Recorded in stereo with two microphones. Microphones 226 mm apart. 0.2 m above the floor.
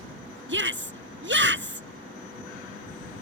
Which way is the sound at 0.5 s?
60° right (ahead or behind).